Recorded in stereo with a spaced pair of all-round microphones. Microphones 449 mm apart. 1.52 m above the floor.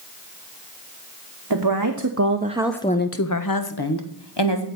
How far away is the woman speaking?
About 1.2 m.